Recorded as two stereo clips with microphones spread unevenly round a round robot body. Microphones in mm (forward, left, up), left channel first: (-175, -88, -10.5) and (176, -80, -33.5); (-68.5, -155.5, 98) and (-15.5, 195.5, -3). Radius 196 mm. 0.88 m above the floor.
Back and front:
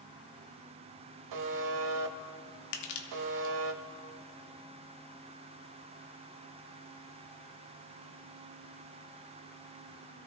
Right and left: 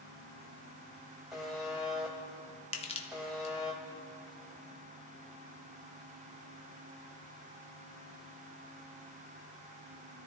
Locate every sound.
1.3 s a buzzer: 20° right, 0.9 m
2.7 s crushing: 170° right, 1.1 m